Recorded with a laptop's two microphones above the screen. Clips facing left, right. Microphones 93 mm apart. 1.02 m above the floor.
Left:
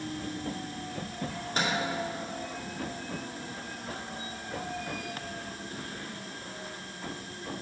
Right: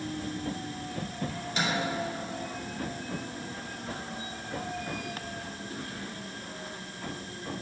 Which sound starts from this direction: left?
A microwave, at 1.3 s.